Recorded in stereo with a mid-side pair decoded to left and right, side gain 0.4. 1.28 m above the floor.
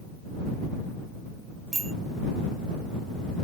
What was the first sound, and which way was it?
A bicycle bell, 30° right.